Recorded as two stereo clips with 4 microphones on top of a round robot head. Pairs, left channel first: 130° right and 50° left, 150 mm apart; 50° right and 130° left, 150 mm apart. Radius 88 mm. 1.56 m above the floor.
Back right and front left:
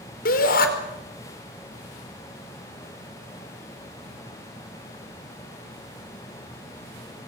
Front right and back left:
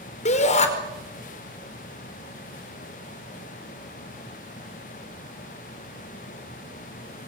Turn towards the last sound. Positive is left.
turn(degrees=-95)